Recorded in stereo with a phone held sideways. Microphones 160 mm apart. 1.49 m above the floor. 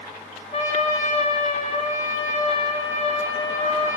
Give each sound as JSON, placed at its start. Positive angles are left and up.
{"t": 0.5, "sound": "a trumpet", "side_deg": 50, "distance_m": 2.5}